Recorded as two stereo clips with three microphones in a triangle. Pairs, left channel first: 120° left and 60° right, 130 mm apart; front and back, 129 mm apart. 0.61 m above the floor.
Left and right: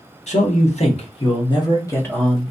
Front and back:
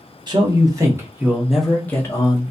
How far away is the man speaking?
About 1.2 m.